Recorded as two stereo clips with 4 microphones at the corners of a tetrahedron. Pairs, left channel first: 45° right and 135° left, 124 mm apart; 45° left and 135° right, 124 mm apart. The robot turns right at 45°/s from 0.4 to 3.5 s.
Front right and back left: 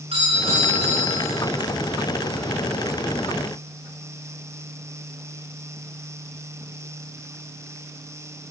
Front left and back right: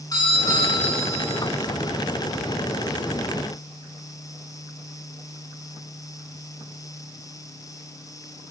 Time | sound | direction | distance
0.1 | a doorbell | 100° left | 7.5 m